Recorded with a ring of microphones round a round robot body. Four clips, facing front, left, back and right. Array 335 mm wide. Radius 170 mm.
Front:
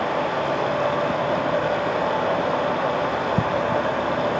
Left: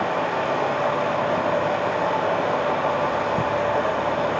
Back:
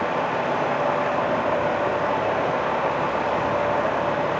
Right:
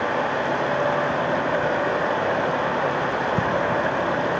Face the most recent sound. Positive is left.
turn(degrees=-20)